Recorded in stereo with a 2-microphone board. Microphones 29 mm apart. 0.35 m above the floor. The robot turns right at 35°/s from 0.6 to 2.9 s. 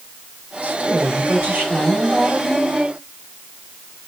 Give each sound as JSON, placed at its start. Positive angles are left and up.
{"t": 0.6, "sound": "a woman speaking", "azimuth_deg": -110, "distance_m": 1.6}